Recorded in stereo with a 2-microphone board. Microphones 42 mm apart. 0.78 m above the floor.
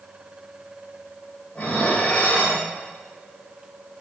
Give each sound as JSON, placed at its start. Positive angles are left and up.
{"t": 1.6, "sound": "dishes clattering", "side_deg": 35, "distance_m": 2.0}